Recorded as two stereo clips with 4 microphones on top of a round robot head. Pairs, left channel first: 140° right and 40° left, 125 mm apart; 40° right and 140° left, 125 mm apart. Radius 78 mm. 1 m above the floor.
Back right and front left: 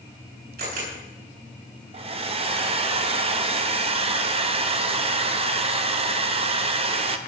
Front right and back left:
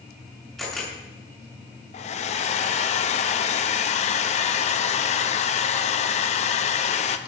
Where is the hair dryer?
5° right, 1.1 m.